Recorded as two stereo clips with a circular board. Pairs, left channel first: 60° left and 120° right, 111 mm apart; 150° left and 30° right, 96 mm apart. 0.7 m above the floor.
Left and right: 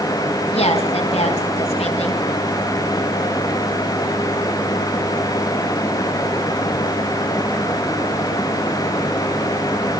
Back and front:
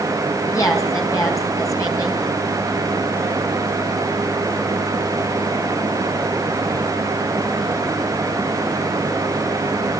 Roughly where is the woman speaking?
Left.